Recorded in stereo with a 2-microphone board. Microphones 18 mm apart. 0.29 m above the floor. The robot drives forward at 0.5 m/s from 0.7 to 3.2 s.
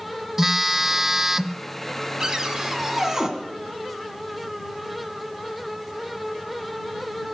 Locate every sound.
0.4 s a phone buzzing: 15° right (ahead or behind), 0.6 m
2.2 s a cupboard door: 35° right (ahead or behind), 1.6 m; by 3.3 s 30° right (ahead or behind), 2.0 m